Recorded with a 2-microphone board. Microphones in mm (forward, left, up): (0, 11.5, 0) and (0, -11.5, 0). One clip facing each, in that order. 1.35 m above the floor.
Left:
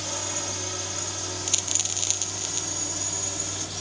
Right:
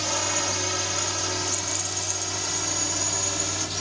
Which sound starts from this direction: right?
A drone, at 0.0 s.